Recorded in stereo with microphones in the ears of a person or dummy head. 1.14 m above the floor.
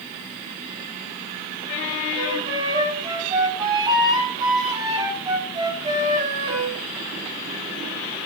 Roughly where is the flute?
Right.